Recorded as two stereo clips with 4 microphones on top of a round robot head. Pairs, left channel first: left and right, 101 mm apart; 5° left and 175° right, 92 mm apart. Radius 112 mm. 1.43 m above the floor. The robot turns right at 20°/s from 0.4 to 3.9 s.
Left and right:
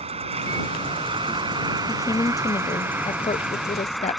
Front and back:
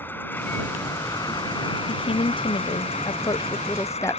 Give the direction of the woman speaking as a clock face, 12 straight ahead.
11 o'clock.